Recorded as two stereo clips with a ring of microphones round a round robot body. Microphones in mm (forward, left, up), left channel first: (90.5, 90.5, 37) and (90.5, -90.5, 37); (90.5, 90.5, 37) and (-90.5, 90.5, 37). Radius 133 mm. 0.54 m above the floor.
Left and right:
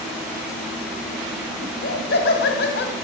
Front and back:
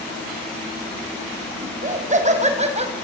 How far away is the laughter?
About 5 m.